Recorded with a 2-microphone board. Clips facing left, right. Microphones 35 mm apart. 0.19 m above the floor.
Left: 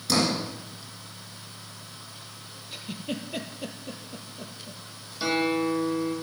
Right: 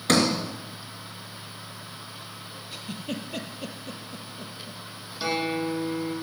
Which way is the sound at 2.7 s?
5° left (ahead or behind).